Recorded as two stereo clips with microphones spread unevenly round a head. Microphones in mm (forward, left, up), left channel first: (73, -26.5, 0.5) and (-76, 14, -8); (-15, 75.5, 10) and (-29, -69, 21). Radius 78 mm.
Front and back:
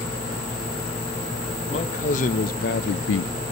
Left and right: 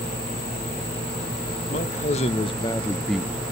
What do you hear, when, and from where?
1.7 s a man speaking: 35° left, 1.3 m; by 3.3 s 20° right, 0.5 m